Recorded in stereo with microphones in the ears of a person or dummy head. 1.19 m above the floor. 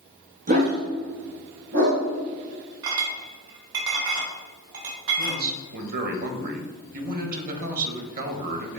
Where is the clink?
70° right (ahead or behind), 2 m.